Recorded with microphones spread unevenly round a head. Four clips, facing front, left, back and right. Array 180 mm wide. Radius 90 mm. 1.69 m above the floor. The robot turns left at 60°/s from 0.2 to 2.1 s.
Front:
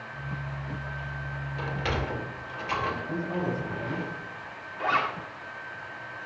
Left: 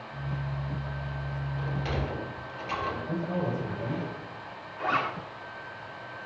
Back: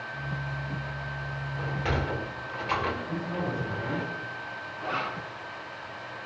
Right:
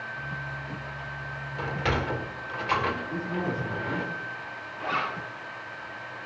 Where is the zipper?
20° left, 5.5 m.